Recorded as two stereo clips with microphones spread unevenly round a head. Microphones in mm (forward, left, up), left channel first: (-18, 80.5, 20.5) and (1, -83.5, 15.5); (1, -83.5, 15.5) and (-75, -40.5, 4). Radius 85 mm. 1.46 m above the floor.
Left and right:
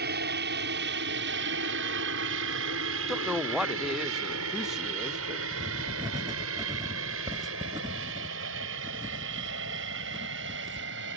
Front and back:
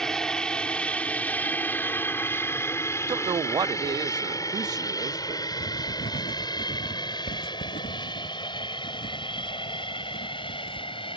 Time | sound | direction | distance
0.0 | an aircraft | 110° right | ?
3.1 | a woman speaking | 170° right | ?
5.5 | writing | 10° right | ?